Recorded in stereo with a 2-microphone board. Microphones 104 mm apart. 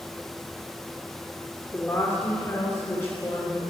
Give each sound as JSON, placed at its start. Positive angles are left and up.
{"t": 1.7, "sound": "a woman speaking", "side_deg": 15, "distance_m": 3.0}